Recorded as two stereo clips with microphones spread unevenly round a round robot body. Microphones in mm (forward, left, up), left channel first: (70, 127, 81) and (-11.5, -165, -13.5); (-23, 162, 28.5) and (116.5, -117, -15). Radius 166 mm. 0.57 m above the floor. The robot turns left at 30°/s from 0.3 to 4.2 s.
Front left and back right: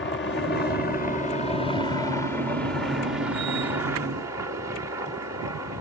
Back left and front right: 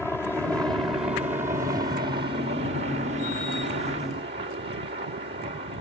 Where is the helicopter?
25° left; by 5.8 s 90° right.